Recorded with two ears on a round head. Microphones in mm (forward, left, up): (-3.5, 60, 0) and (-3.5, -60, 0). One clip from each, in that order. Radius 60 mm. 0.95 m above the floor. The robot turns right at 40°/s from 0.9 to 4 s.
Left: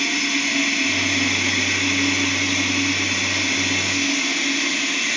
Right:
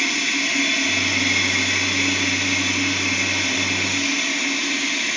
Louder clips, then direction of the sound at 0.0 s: Even; 90° right.